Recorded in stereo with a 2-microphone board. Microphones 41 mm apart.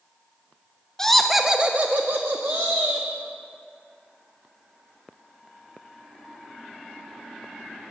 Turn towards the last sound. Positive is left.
turn(degrees=-85)